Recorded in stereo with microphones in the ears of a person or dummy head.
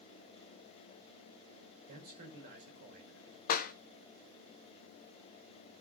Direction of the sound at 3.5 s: 50° left (ahead or behind).